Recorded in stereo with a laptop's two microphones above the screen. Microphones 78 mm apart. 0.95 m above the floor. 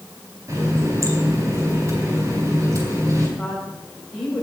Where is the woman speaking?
5° left (ahead or behind), 5 m.